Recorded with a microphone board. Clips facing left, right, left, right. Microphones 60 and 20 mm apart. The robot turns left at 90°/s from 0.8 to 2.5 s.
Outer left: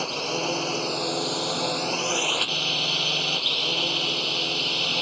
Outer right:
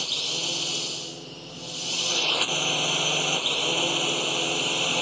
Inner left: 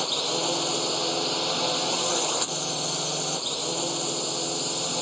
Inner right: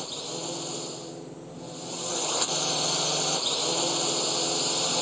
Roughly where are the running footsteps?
No running footsteps in this recording.